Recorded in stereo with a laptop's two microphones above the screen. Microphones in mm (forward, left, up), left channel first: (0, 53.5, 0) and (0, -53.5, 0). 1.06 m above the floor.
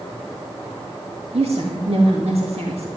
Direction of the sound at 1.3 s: 70° right (ahead or behind).